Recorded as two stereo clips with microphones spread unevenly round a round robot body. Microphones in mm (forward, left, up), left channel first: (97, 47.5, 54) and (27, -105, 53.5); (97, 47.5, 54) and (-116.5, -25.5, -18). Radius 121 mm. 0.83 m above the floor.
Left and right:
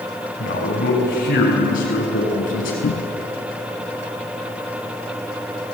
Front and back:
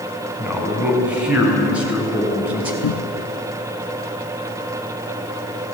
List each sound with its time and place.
0.4 s a man speaking: 115° left, 6 m
2.8 s a cupboard door: 25° left, 0.6 m